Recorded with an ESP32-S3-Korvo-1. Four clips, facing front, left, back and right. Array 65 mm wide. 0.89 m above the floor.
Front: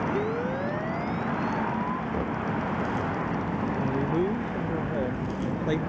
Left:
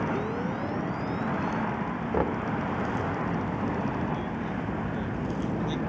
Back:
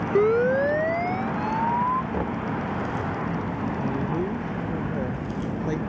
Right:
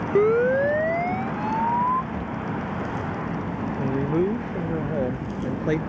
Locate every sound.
0.1 s a siren: 125° right; by 2.0 s 120° right
2.1 s knocking: 105° left
3.8 s a man speaking: 75° right